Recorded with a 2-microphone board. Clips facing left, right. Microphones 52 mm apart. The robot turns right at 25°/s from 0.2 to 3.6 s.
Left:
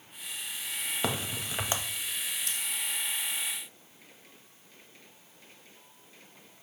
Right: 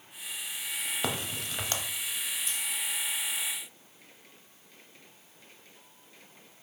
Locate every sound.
1.0 s a crack: centre (ahead or behind), 0.7 m; by 1.8 s 20° left (ahead or behind), 0.7 m
2.5 s scissors: 75° left (ahead or behind), 1.4 m; by 2.6 s 80° left, 1.4 m